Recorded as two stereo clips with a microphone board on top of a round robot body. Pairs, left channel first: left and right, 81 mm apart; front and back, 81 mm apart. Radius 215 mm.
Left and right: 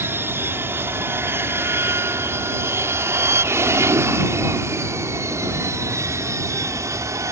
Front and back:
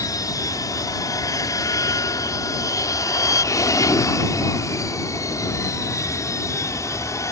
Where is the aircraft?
35° right; by 7.3 s 45° right.